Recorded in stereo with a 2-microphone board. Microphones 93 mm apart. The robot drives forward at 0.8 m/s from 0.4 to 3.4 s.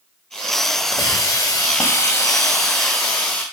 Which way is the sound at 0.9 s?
30° left (ahead or behind).